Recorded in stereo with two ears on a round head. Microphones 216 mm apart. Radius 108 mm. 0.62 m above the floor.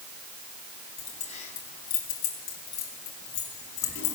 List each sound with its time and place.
1.0 s keys jangling: 25° left (ahead or behind), 3 m; by 4.2 s 55° left (ahead or behind), 3.5 m